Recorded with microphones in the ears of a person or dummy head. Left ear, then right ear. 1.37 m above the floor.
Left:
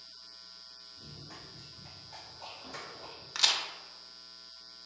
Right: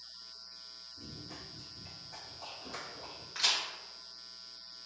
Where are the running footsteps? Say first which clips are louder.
Right 1 dB; 15° left (ahead or behind), 1.8 m; by 3.2 s 5° right (ahead or behind), 2.5 m.